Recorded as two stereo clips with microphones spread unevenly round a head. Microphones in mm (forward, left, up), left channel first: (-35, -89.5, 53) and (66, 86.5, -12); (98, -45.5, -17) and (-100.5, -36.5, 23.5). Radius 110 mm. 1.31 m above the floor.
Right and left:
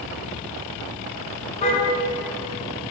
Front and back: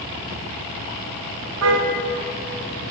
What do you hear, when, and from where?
1.6 s a car horn: straight behind, 7.5 m